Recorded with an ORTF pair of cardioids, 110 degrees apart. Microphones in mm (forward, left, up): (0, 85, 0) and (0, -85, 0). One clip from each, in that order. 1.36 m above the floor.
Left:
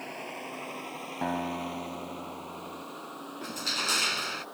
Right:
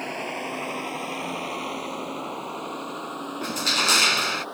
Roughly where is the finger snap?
No finger snap in this recording.